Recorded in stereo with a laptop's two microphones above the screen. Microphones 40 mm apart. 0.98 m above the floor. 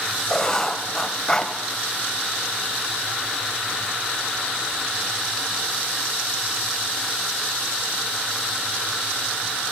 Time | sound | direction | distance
0.3 | writing | 20° left (ahead or behind) | 1.9 m